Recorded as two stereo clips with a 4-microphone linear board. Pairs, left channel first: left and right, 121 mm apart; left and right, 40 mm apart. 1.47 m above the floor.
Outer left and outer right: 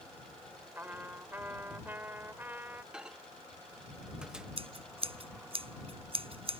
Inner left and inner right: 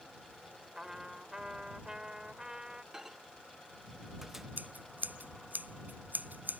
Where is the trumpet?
15° right (ahead or behind).